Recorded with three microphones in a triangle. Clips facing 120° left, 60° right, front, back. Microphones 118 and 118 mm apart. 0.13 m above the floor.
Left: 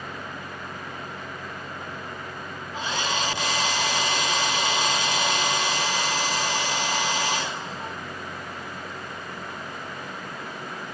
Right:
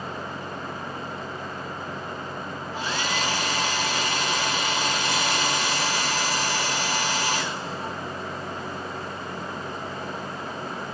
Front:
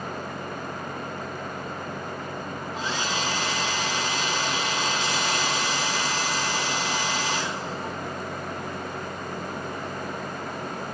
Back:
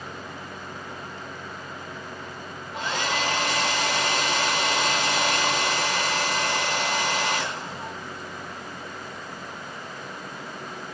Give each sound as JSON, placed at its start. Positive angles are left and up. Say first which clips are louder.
{"t": 2.7, "sound": "a hair dryer", "louder": "left 1 dB, back 3 dB", "azimuth_deg": -170, "distance_m": 1.0}